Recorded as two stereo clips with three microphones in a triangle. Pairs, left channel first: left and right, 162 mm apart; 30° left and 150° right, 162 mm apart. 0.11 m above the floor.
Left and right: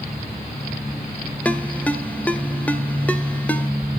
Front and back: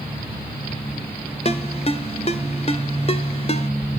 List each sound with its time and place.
1.4 s a ringtone: 15° left, 0.9 m